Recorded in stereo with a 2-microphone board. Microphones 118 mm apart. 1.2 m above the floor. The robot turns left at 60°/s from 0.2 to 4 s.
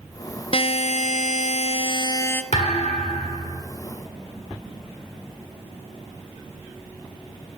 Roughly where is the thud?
Left.